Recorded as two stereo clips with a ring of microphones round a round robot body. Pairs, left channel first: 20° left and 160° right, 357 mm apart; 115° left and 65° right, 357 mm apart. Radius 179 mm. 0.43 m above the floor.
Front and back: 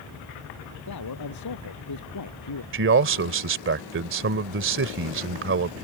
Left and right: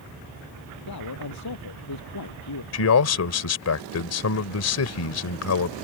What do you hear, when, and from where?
0.9 s a man speaking: 65° left
2.7 s a man speaking: 150° left